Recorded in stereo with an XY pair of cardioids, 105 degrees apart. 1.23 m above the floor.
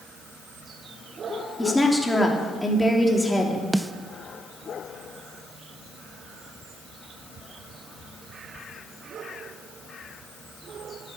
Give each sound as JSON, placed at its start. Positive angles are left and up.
{"t": 1.6, "sound": "a woman speaking", "azimuth_deg": 10, "distance_m": 3.0}
{"t": 3.7, "sound": "a snare drum", "azimuth_deg": -10, "distance_m": 0.6}